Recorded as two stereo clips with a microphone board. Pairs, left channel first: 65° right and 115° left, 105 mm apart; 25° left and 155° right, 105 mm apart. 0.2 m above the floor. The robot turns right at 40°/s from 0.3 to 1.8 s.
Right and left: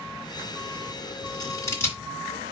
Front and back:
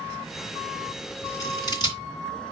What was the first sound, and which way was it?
Scissors, 30° right.